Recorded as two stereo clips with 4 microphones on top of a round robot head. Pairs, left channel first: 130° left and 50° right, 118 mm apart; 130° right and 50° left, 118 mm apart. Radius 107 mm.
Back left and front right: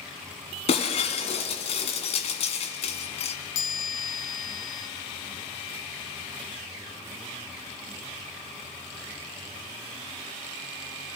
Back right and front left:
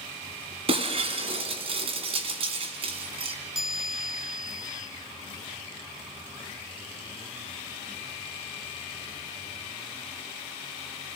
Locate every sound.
0.7 s breaking glass: 90° left, 1.7 m
3.5 s a chime: 135° left, 2.0 m